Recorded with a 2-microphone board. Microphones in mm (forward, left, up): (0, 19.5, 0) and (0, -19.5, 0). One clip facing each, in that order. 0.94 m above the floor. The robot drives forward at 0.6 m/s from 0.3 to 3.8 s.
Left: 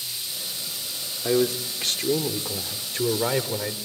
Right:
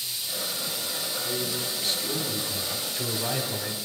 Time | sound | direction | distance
1.2 | a man speaking | 80° left | 2 m